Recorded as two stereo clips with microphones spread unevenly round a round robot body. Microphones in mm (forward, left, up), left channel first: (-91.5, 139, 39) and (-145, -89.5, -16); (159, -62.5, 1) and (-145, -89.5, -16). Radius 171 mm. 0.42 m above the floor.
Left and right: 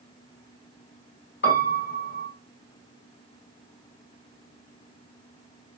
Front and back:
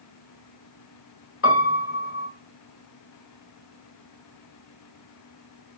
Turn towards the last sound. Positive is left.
turn(degrees=35)